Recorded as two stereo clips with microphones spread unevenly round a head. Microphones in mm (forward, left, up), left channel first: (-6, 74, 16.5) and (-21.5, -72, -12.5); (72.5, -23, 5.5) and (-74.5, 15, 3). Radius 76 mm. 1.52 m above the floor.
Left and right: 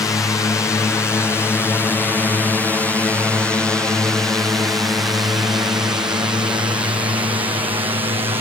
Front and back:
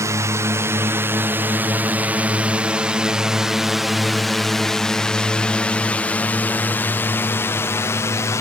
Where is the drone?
145° left; by 8.4 s 65° right.